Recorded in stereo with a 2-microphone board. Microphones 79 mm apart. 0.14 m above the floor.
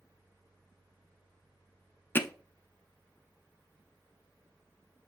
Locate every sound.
2.1 s hammering: 25° left (ahead or behind), 0.7 m